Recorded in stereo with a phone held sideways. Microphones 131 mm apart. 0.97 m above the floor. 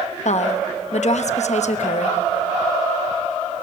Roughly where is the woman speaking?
Left.